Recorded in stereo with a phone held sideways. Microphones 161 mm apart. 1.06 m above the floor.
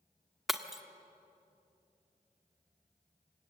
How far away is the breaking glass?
About 1.2 m.